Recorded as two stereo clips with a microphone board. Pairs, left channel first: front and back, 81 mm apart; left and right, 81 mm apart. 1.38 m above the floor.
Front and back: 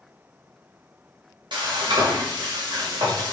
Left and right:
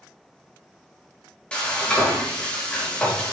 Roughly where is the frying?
Behind.